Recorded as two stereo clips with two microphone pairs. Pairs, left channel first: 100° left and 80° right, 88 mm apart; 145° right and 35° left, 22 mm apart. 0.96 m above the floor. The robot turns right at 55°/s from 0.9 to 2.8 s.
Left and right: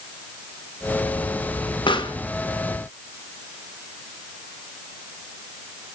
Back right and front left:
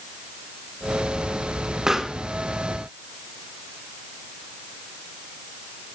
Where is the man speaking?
I don't hear a man speaking.